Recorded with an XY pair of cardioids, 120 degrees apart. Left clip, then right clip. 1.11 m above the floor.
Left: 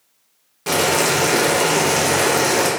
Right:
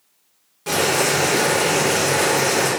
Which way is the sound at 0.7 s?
30° left.